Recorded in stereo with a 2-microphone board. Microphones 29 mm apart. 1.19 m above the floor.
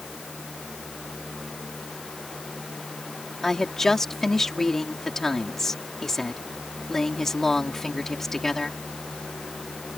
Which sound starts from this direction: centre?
A woman speaking, at 3.4 s.